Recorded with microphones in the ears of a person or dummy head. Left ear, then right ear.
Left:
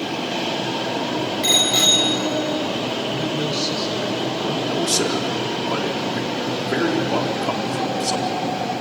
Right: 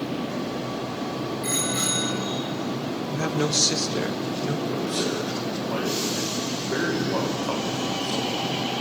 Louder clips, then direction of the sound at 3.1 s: Left 2 dB; 40° right (ahead or behind).